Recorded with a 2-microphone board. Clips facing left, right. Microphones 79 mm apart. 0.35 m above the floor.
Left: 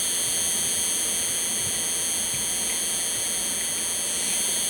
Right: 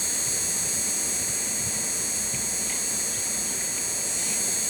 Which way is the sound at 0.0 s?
20° right (ahead or behind).